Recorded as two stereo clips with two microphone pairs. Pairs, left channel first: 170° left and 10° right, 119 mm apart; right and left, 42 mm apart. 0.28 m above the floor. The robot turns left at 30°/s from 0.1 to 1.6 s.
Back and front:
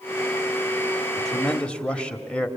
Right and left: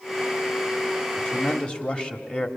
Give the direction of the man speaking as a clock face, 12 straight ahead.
4 o'clock.